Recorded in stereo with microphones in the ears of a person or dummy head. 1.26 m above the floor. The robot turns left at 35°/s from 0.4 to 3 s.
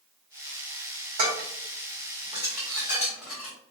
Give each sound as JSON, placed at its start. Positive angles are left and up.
{"t": 1.2, "sound": "dishes clattering", "side_deg": -70, "distance_m": 2.0}